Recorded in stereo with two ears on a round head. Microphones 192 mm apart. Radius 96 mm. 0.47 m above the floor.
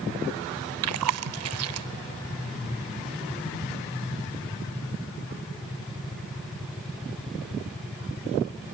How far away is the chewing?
About 0.5 m.